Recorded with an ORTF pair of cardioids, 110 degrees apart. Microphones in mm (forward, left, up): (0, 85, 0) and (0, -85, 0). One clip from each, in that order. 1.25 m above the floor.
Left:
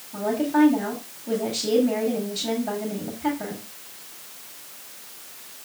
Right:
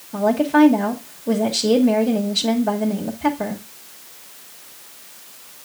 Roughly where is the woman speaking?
Ahead right.